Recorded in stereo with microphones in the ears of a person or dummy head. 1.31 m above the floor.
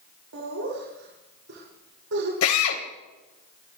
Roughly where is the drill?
Left.